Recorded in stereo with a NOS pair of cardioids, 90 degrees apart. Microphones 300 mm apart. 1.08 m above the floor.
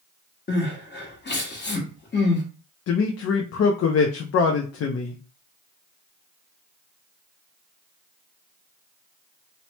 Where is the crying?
35° left, 1.2 m.